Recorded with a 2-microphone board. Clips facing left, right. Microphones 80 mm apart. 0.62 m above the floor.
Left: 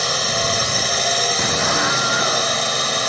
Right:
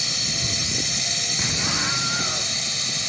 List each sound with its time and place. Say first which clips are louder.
0.0 s a drone: left 11 dB; 70° left (ahead or behind)
1.4 s an explosion: left 5 dB; 35° left (ahead or behind)